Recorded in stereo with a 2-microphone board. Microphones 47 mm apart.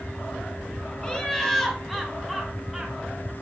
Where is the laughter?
20° left (ahead or behind), 2 m; by 3.3 s 5° right (ahead or behind), 3 m.